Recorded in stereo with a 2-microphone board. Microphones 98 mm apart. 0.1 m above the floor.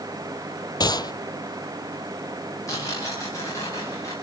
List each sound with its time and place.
0.8 s a gunshot: 45° left (ahead or behind), 0.5 m
2.7 s tearing paper: 35° left (ahead or behind), 9.5 m